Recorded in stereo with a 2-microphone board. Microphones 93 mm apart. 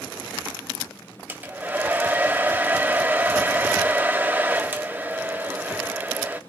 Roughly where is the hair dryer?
Centre.